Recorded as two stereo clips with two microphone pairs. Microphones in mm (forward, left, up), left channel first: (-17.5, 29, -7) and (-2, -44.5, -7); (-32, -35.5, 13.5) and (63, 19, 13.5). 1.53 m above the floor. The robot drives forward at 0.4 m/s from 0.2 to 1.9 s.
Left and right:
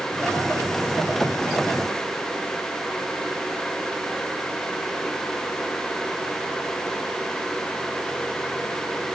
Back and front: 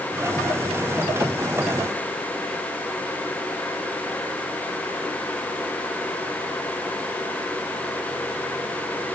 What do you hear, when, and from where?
Only background noise.